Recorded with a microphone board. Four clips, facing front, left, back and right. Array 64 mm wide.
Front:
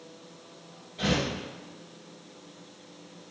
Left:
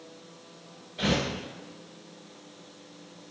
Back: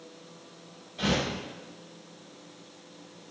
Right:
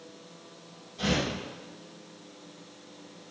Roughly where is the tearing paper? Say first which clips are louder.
Left 1 dB, even; left.